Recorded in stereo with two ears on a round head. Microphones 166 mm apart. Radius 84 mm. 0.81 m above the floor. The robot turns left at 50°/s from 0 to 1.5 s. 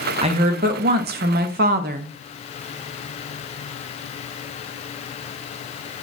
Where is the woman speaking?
40° right, 0.5 m; by 2.1 s 105° right, 0.5 m.